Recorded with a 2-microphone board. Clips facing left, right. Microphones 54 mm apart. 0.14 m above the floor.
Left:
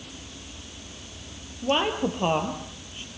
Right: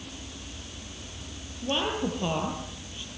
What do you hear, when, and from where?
1.6 s a woman speaking: 45° left (ahead or behind), 4 m